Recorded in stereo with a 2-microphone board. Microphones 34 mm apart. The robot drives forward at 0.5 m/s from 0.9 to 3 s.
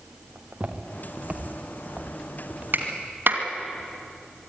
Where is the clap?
60° right (ahead or behind), 2.5 m; by 3.4 s 65° right (ahead or behind), 2.5 m.